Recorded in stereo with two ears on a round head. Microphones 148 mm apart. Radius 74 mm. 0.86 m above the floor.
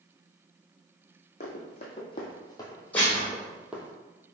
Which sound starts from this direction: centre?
Dishes clattering, at 2.9 s.